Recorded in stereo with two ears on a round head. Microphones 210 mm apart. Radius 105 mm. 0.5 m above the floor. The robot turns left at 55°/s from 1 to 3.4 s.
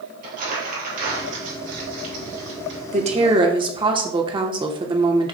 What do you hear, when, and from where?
0.2 s crumpling: 35° right (ahead or behind), 3.5 m; by 2.8 s 45° right (ahead or behind), 3.5 m
2.9 s a woman speaking: 30° right (ahead or behind), 1.1 m; by 5.3 s 20° right (ahead or behind), 1.1 m